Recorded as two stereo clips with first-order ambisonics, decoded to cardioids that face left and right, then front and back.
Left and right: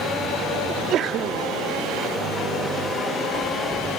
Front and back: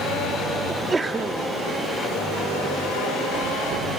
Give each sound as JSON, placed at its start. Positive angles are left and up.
{"t": 0.7, "sound": "a sneeze", "azimuth_deg": -105, "distance_m": 0.8}